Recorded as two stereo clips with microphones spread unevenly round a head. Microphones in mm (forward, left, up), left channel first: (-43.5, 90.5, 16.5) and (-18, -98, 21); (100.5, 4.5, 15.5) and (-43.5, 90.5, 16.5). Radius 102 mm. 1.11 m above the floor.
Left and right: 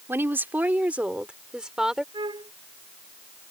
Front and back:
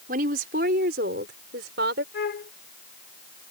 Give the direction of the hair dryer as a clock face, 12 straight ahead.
I don't hear a hair dryer.